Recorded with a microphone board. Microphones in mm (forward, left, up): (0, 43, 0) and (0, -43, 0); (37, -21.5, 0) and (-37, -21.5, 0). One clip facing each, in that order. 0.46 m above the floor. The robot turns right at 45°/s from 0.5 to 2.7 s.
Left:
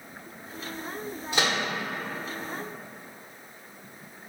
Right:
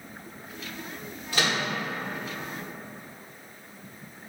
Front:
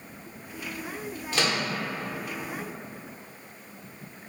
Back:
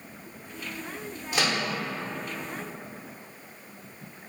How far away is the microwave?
About 0.8 m.